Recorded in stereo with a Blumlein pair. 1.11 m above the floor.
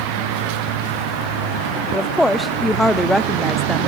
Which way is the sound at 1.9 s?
5° left.